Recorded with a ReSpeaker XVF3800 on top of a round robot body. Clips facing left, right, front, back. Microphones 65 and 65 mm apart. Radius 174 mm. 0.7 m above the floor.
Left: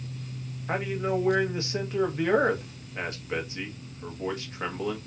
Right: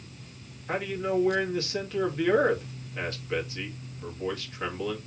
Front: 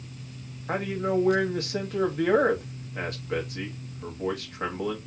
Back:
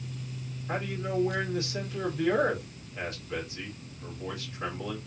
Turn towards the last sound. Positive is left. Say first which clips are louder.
# left 1 dB, front 6 dB
turn(degrees=25)